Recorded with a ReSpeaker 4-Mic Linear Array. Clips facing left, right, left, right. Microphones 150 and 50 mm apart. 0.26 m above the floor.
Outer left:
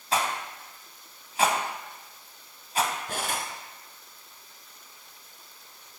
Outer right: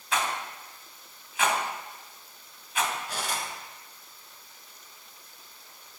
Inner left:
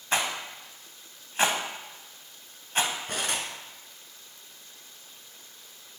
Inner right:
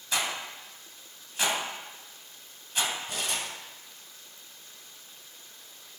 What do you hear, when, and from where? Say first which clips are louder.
0.1 s a rattle: outer left 2 dB, inner left 3 dB; 40° left (ahead or behind), 1.5 m
3.1 s cutlery clinking: outer left 2 dB, inner left 2 dB; 55° left (ahead or behind), 2 m